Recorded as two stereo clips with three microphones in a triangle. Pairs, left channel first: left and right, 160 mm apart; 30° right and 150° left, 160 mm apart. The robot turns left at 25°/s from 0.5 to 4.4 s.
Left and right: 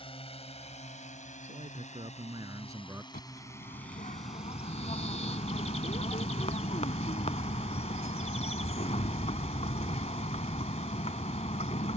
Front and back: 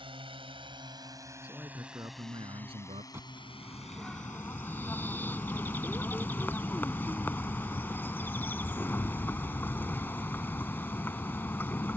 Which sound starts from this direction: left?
A bird, at 3.1 s.